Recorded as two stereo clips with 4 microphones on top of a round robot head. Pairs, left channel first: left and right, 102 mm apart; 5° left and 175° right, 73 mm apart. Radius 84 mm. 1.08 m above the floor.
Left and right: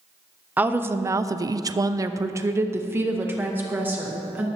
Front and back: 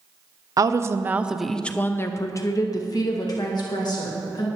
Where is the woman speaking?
160° right, 0.7 m; by 4.5 s 15° right, 1.9 m.